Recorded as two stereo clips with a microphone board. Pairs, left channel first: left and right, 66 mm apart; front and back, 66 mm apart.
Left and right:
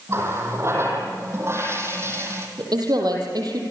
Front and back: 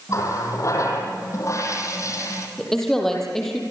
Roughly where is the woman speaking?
Right.